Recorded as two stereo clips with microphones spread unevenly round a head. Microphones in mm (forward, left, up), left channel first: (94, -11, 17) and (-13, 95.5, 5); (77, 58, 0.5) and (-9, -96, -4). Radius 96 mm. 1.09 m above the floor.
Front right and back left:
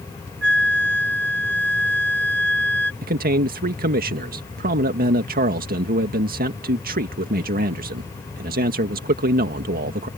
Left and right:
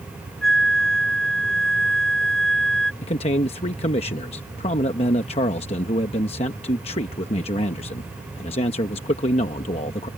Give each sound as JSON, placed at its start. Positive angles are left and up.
{"t": 0.4, "sound": "a flute", "azimuth_deg": 150}
{"t": 3.0, "sound": "a man speaking", "azimuth_deg": 120}